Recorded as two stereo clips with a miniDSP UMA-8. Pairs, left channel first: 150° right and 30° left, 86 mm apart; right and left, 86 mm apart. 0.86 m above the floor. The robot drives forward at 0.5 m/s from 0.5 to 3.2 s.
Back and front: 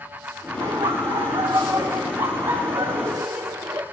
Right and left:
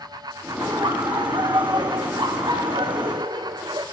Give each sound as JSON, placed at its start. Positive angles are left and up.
{"t": 0.6, "sound": "laughter", "azimuth_deg": 45, "distance_m": 3.0}